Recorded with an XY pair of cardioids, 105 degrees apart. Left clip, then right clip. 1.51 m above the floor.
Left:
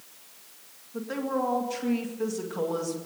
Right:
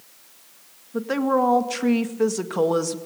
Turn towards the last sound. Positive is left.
turn(degrees=-60)